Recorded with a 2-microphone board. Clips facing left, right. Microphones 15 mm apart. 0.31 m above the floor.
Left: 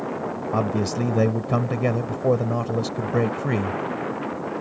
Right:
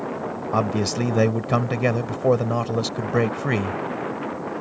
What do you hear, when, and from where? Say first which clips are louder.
0.5 s a man speaking: right 2 dB; 30° right (ahead or behind)